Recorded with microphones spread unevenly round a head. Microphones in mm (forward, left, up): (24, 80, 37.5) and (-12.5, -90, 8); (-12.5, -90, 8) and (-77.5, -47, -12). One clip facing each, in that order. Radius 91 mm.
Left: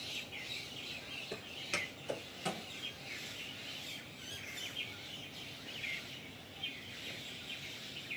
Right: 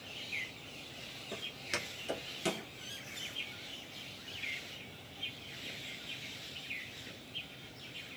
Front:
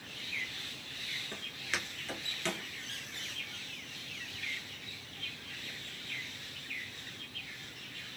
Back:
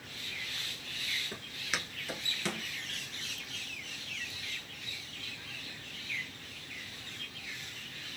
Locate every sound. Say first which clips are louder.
1.3 s footsteps: right 1 dB, back 1 dB; 55° left, 1.0 m; by 2.7 s 115° right, 1.1 m